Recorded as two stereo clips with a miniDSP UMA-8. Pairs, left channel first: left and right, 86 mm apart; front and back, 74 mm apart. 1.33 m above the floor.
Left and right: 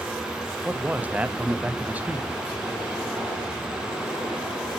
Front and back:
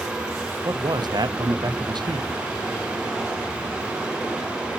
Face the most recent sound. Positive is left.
turn(degrees=-160)